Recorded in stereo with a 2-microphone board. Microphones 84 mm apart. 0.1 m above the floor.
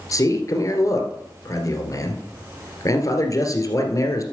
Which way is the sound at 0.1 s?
40° left (ahead or behind).